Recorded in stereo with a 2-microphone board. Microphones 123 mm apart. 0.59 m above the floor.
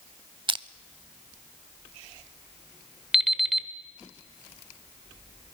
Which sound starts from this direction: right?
Crushing, at 0.5 s.